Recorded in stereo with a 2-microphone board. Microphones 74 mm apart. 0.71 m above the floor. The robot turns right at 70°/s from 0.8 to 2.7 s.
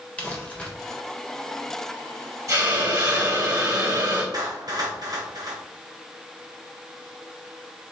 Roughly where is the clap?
Right.